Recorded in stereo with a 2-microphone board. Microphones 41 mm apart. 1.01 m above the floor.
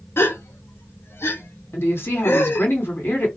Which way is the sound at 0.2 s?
80° left.